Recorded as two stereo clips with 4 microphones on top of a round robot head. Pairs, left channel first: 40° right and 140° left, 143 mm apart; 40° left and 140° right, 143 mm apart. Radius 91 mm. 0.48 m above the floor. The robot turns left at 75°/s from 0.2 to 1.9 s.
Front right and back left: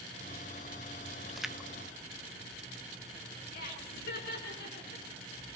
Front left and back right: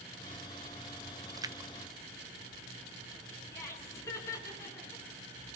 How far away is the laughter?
About 6 m.